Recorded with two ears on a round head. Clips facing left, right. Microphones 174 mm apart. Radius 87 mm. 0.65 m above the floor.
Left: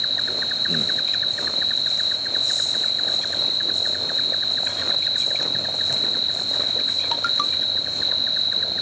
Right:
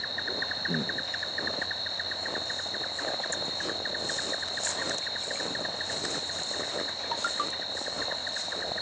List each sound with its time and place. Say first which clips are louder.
0.0 s an insect: left 3 dB; 45° left (ahead or behind), 0.8 m